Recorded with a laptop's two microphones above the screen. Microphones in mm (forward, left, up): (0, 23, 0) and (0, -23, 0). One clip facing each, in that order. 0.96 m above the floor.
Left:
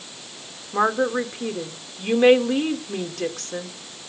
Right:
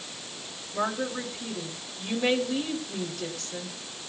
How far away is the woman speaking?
About 1.7 m.